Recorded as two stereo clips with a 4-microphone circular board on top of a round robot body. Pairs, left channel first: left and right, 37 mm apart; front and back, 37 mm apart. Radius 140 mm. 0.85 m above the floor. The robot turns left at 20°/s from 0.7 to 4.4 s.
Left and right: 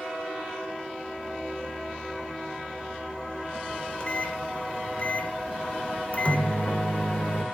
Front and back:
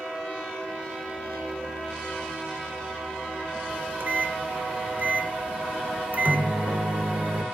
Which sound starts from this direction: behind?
A microwave, at 3.7 s.